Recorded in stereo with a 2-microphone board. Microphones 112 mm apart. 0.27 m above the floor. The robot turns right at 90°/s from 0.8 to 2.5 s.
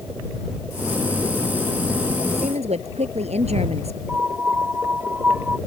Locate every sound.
2.3 s a woman speaking: 75° right (ahead or behind)
4.1 s a piano: 15° right (ahead or behind)